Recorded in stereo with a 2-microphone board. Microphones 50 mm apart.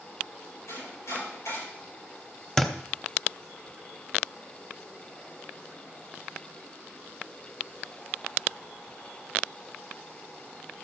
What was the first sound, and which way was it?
Chopping, 90° left.